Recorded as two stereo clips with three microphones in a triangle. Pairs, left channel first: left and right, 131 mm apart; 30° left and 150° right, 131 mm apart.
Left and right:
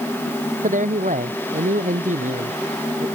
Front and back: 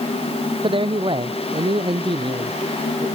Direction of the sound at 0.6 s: 100° right.